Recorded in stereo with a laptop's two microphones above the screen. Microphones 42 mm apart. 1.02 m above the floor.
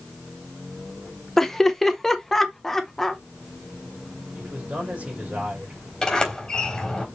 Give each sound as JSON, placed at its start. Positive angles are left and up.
{"t": 1.4, "sound": "laughter", "side_deg": 10, "distance_m": 0.9}
{"t": 4.3, "sound": "a man speaking", "side_deg": -30, "distance_m": 4.5}
{"t": 6.0, "sound": "a sliding door", "side_deg": 20, "distance_m": 3.5}